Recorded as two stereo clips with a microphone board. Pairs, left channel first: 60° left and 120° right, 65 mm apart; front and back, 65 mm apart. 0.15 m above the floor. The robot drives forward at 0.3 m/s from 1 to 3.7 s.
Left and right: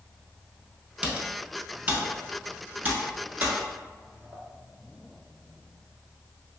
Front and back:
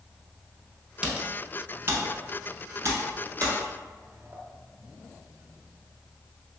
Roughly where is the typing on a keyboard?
Behind right.